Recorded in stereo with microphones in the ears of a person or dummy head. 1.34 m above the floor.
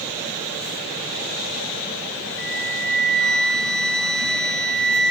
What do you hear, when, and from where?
2.4 s a flute: 5° left (ahead or behind), 0.8 m